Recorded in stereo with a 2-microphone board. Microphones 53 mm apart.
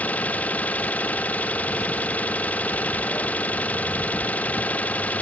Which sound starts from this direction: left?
An engine running, at 0.0 s.